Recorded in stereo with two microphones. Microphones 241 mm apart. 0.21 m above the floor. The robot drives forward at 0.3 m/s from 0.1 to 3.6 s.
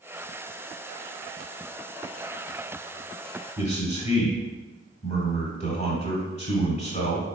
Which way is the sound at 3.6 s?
30° left (ahead or behind).